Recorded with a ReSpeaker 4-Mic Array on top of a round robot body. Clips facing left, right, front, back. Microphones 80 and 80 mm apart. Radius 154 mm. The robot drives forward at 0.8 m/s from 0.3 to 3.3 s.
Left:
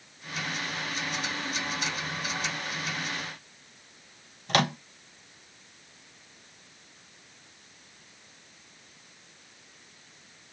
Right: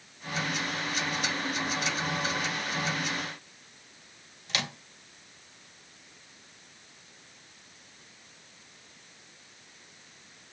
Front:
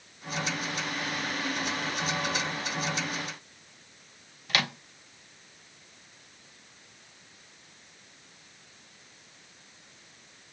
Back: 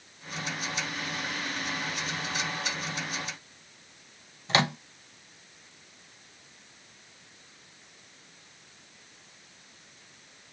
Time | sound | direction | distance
4.5 | a microwave | 120° left | 0.7 m